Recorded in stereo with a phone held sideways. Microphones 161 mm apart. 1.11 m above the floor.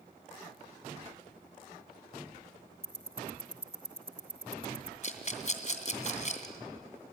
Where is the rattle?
50° left (ahead or behind), 2.5 m.